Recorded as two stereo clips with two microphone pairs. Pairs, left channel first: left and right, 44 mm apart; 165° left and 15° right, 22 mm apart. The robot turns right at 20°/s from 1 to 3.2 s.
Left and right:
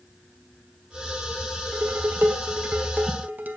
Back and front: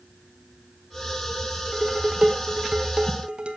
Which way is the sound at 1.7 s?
75° right.